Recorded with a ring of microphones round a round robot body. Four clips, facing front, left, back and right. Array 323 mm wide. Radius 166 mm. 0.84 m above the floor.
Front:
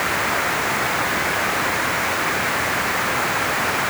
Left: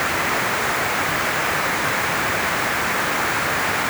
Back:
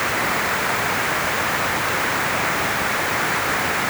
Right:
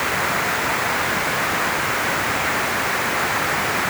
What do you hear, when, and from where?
Only background noise.